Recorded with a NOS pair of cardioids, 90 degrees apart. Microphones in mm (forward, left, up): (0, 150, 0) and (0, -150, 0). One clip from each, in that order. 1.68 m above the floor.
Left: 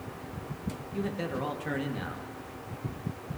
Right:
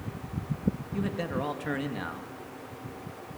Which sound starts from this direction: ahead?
A man speaking, at 0.9 s.